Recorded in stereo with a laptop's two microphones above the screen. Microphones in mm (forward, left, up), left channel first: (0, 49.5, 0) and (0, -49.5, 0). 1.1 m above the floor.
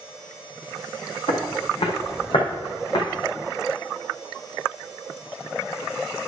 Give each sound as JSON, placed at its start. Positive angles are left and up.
{"t": 1.3, "sound": "footsteps", "side_deg": 65, "distance_m": 3.0}